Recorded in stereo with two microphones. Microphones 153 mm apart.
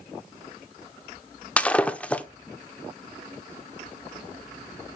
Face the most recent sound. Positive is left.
turn(degrees=10)  # may be behind; listen again after turning